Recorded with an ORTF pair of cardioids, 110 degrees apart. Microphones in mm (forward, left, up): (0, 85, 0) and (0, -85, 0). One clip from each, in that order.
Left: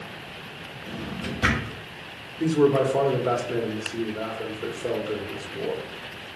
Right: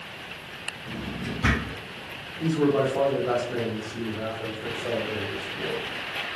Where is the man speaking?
55° left, 1.2 m.